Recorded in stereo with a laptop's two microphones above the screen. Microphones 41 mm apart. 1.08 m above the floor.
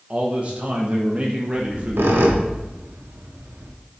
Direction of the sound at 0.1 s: 35° right (ahead or behind).